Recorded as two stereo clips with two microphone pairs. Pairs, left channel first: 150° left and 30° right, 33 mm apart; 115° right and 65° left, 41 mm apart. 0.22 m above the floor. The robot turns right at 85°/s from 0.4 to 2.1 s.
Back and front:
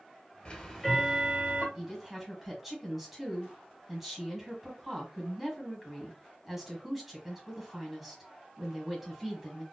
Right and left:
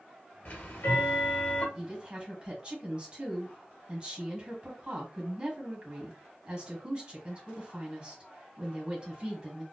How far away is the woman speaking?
About 1.6 m.